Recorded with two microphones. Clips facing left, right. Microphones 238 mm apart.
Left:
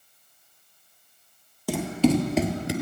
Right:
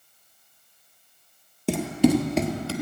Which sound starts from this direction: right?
Running footsteps, at 1.7 s.